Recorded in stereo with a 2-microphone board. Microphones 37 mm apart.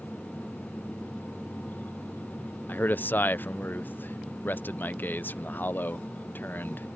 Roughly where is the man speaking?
Left.